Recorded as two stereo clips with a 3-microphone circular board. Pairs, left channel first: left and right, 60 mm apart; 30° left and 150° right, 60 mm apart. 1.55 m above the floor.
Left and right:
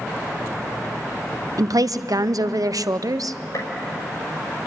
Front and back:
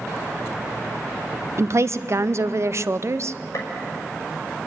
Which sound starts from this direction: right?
A woman speaking, at 1.6 s.